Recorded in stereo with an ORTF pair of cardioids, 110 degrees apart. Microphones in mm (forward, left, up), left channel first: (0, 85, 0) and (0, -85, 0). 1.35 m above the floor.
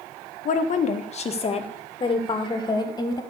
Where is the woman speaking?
50° left, 1.6 m; by 3.2 s 20° left, 3 m.